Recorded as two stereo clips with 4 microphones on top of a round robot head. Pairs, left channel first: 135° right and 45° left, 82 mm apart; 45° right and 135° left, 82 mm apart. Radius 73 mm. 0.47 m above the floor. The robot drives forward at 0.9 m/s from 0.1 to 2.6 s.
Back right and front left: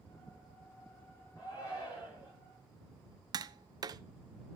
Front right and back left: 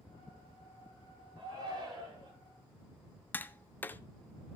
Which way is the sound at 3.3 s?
20° left.